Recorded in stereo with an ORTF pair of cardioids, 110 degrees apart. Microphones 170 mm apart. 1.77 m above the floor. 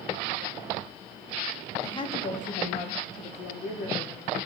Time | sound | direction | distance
1.8 | a woman speaking | 20° left | 1.2 m